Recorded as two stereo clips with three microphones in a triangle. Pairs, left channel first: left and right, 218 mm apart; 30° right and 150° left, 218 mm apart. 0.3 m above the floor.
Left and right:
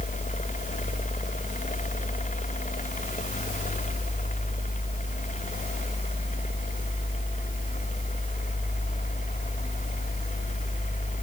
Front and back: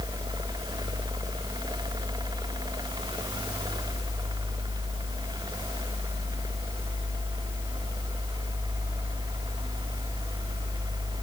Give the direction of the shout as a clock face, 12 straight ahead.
I don't hear a shout.